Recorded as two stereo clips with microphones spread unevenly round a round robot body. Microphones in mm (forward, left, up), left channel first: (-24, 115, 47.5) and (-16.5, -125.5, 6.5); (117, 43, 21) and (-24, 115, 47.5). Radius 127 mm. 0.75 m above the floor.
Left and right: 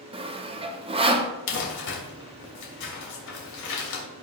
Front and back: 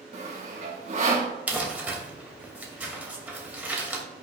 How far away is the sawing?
About 1.1 m.